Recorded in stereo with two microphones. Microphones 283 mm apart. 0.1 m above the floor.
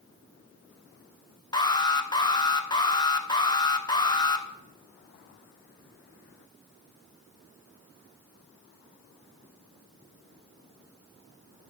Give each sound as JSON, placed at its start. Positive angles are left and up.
{"t": 1.5, "sound": "an alarm", "side_deg": 15, "distance_m": 0.8}